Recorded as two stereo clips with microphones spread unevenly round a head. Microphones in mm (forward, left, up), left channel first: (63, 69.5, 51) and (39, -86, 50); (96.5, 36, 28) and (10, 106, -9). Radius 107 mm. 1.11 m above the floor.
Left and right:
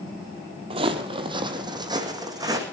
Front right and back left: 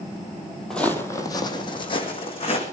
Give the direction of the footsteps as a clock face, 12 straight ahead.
3 o'clock.